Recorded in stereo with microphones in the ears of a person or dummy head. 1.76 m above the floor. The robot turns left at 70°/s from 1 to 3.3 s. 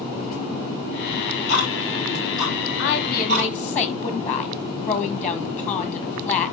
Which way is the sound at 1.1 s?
80° left.